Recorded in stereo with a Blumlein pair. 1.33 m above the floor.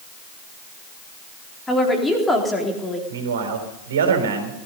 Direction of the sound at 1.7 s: 10° left.